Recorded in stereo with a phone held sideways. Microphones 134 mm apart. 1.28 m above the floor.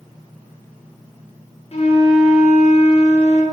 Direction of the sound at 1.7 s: 50° left (ahead or behind).